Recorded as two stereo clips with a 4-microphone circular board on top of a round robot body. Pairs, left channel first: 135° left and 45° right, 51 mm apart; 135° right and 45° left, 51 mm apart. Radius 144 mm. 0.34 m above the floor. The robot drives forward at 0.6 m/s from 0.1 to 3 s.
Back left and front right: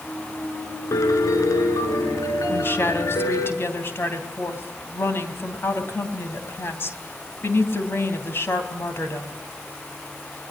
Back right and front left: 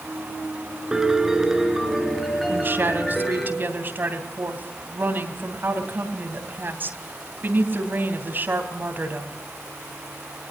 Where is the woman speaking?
90° left, 3.5 m; by 9.4 s 95° left, 3.5 m.